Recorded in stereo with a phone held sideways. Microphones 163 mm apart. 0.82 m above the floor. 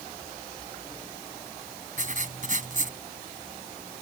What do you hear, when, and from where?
2.0 s writing: 50° right (ahead or behind)